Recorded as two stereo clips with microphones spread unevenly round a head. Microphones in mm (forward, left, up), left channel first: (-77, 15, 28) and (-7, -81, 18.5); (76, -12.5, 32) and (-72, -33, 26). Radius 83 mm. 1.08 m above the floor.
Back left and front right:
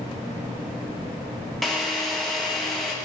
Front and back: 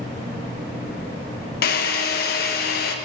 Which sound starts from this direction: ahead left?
A drill, at 1.6 s.